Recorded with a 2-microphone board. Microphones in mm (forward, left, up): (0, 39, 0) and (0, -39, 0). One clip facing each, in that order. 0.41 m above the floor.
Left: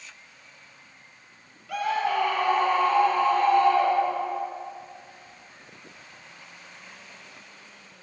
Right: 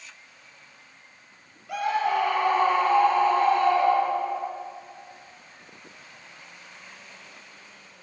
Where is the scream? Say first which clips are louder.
Right 1 dB; 20° right (ahead or behind), 7.5 m; by 4.4 s 35° right (ahead or behind), 9.5 m.